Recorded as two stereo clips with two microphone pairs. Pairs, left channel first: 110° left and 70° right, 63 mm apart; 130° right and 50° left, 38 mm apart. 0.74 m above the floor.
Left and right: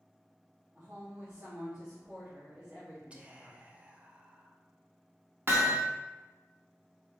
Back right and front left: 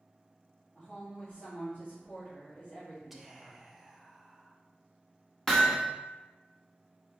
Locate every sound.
0.8 s a woman speaking: 130° right, 1.6 m
3.1 s whispering: 40° right, 0.6 m
5.5 s hammering: 60° right, 0.9 m